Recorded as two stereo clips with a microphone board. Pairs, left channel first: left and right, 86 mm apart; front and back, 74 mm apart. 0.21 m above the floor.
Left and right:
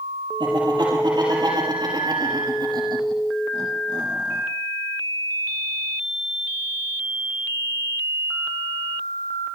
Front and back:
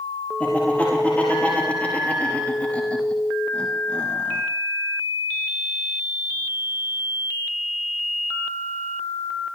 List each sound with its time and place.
0.4 s laughter: 70° right, 7.5 m